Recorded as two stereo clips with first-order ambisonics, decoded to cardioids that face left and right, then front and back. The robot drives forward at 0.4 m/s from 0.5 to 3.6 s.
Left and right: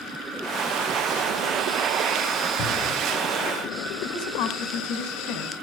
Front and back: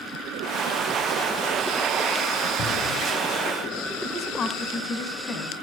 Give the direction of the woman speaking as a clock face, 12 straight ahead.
10 o'clock.